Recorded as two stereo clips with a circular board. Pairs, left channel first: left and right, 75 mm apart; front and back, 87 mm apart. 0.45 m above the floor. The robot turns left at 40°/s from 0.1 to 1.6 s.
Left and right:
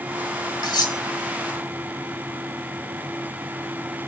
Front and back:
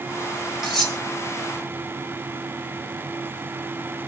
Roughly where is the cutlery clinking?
Left.